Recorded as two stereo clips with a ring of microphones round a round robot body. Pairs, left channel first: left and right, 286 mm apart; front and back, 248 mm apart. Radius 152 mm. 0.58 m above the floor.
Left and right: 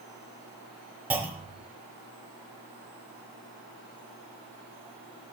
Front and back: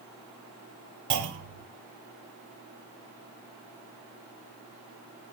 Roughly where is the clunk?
Behind.